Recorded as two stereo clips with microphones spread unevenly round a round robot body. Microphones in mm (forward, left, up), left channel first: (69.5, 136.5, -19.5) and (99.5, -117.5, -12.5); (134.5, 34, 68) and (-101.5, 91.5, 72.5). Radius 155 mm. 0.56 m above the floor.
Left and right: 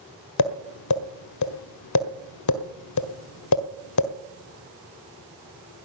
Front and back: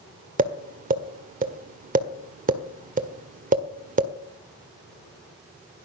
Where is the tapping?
110° left, 1.7 m.